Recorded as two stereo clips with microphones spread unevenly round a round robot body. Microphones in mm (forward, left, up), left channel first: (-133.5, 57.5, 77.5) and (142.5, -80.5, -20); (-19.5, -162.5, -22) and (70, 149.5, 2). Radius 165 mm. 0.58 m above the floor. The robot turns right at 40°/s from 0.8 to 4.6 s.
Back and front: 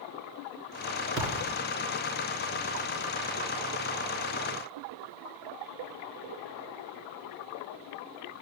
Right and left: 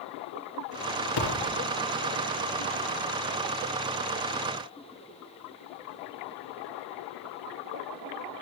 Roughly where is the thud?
Right.